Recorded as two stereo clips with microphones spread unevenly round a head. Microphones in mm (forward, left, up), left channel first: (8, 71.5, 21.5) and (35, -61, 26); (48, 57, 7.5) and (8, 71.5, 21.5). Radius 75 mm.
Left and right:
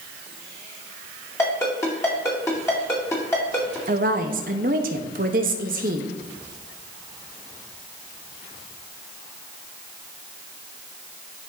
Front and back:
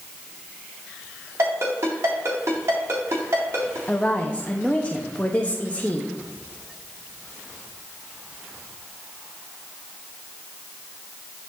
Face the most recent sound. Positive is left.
turn(degrees=-110)